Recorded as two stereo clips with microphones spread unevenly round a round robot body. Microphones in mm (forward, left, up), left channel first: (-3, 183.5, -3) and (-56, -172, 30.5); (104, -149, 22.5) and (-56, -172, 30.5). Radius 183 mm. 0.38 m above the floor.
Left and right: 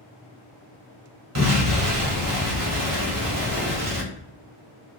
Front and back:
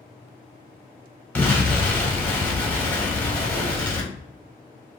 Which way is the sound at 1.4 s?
65° right.